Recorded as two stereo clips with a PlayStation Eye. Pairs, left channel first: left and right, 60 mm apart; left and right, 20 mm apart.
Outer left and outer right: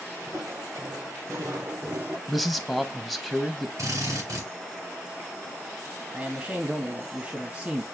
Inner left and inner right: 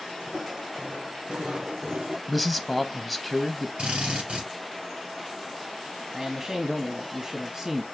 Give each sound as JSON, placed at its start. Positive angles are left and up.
{"t": 0.2, "sound": "footsteps", "side_deg": -75, "distance_m": 3.0}
{"t": 2.3, "sound": "a man speaking", "side_deg": -5, "distance_m": 0.8}
{"t": 3.8, "sound": "a drill", "side_deg": -70, "distance_m": 4.0}
{"t": 6.1, "sound": "a man speaking", "side_deg": -35, "distance_m": 1.3}